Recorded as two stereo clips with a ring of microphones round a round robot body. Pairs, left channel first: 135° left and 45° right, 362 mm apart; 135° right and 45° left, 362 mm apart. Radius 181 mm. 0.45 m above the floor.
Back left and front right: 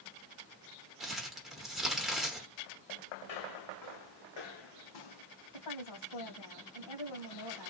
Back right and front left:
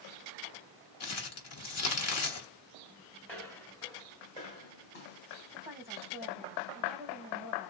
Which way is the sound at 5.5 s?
135° left.